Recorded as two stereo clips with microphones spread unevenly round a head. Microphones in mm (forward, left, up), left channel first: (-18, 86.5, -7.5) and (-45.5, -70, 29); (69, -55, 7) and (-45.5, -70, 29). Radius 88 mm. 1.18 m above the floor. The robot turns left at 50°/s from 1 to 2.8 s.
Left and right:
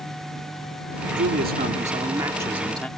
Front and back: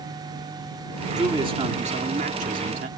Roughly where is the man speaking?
Behind right.